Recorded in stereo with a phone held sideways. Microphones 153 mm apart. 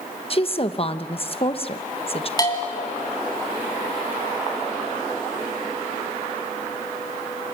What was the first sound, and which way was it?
A woman speaking, 40° left (ahead or behind).